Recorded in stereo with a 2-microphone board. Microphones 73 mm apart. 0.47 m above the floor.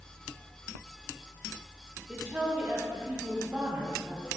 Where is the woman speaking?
20° right (ahead or behind), 1.1 m.